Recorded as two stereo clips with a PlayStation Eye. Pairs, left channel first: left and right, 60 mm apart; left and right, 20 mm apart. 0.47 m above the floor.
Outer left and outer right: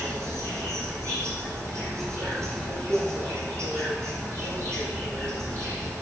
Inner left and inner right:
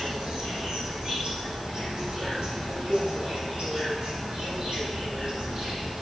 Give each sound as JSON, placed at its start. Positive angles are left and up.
{"t": 0.0, "sound": "an insect", "side_deg": -50, "distance_m": 8.0}